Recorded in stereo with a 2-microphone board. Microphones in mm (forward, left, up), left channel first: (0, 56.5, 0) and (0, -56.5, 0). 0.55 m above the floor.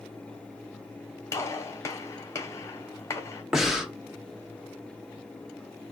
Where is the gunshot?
25° left (ahead or behind), 1.1 m.